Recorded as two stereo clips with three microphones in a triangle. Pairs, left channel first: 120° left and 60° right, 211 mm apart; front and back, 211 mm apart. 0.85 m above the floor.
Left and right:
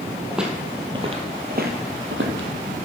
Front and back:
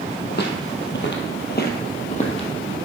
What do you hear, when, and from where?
0.3 s footsteps: 30° left, 1.9 m; by 2.5 s 60° right, 2.0 m